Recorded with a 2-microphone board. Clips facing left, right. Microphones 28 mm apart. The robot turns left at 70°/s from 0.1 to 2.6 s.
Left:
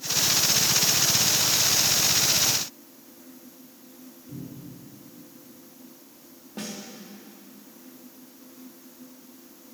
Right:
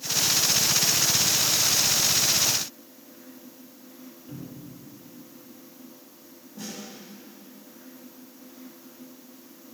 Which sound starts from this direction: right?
A cupboard door, at 4.3 s.